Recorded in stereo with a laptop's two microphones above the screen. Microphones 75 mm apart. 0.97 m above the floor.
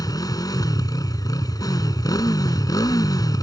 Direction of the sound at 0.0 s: 60° left (ahead or behind).